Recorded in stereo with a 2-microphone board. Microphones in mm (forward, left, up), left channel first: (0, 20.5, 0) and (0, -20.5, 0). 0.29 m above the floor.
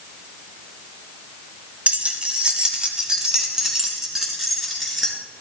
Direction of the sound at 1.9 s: 30° right (ahead or behind).